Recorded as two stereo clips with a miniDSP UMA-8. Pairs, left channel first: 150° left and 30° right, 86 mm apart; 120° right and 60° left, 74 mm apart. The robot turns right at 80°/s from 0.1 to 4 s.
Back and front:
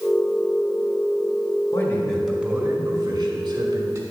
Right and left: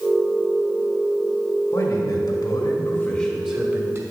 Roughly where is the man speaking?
Behind.